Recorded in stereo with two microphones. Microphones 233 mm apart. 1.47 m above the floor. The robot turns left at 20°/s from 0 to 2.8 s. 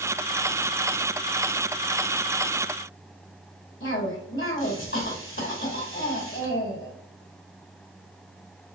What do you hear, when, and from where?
3.8 s a cough: 60° left (ahead or behind), 2 m